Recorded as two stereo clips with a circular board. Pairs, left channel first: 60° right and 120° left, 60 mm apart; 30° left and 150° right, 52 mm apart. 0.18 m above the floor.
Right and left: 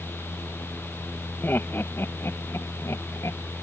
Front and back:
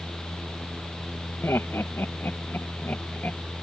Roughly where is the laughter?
Ahead.